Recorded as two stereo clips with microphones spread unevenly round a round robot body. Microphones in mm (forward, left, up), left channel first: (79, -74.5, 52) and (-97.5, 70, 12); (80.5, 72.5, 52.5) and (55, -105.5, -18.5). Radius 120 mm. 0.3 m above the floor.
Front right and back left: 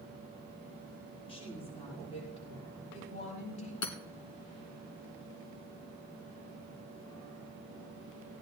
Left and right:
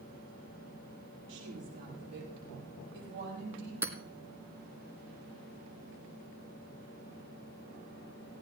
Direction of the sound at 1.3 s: 105° right.